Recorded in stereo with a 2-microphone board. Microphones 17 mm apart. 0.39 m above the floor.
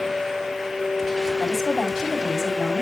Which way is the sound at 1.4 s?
5° left (ahead or behind).